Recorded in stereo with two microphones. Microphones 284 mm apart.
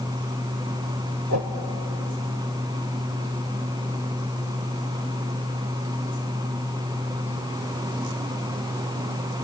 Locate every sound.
1.3 s a whoosh: 65° right (ahead or behind), 1.5 m